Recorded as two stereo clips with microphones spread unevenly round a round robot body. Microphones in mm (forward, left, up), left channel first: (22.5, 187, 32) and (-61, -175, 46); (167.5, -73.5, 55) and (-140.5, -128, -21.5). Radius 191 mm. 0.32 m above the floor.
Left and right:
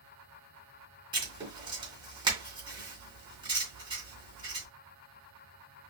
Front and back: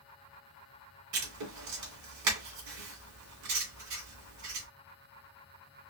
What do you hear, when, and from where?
1.1 s writing: straight behind, 2 m